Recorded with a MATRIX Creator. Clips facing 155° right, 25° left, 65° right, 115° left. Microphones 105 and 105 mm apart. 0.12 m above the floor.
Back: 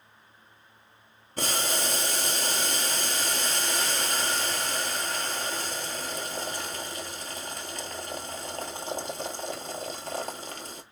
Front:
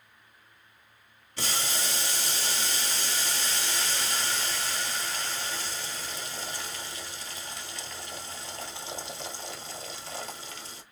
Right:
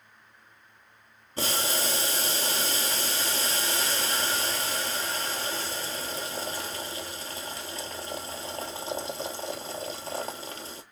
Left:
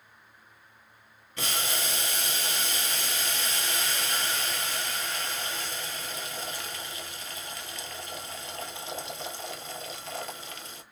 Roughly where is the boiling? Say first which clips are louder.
Back 4 dB, right 3 dB; behind right.